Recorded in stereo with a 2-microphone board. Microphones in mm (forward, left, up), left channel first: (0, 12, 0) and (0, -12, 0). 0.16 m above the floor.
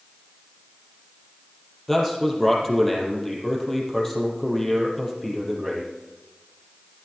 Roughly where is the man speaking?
Centre.